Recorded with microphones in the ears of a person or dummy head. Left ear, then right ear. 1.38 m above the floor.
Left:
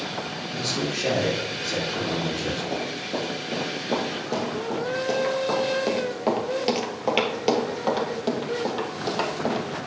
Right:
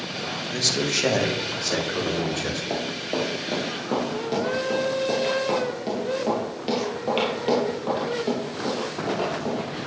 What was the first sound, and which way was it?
A man speaking, 60° right (ahead or behind).